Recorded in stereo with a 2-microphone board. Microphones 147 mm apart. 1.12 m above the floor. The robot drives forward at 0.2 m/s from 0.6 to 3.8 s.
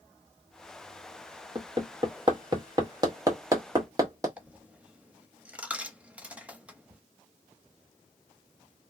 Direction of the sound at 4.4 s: 10° right (ahead or behind).